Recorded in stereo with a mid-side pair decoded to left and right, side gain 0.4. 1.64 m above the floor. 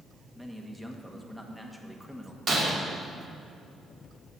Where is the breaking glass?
65° right, 2.5 m.